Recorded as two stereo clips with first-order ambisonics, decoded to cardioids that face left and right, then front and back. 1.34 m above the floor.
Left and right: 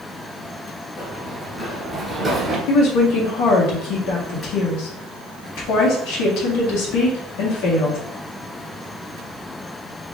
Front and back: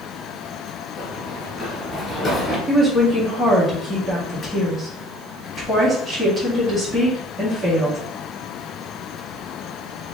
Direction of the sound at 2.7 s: 100° left.